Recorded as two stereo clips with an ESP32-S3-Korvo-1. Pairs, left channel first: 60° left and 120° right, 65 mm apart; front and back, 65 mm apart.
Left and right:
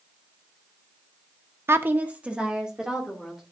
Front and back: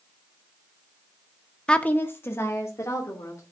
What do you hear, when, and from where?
1.7 s a woman speaking: 75° right, 0.8 m; by 3.4 s 35° right, 3 m